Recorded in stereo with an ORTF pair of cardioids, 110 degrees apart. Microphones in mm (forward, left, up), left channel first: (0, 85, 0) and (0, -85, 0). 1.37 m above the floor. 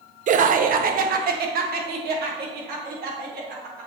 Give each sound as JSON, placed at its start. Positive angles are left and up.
{"t": 0.3, "sound": "laughter", "azimuth_deg": -45, "distance_m": 0.9}